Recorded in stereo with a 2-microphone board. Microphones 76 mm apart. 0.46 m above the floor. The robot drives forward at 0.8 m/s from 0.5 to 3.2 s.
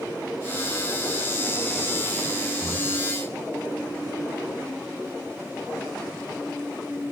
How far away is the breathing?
About 0.8 m.